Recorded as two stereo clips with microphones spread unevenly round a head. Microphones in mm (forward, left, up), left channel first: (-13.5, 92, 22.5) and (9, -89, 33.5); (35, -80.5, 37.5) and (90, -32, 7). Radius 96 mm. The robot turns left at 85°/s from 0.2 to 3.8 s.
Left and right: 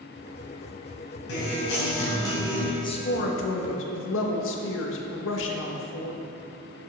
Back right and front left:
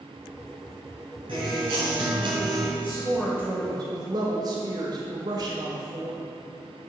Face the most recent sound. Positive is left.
turn(degrees=80)